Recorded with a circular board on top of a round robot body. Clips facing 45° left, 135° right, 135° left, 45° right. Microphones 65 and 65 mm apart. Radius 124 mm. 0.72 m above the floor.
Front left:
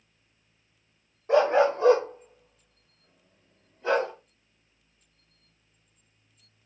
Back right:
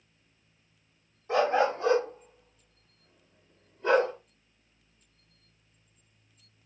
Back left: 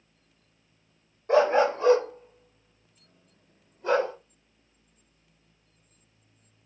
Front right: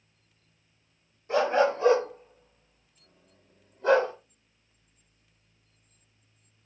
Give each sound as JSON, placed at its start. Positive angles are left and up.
{"t": 1.3, "sound": "a dog barking", "azimuth_deg": 85, "distance_m": 0.6}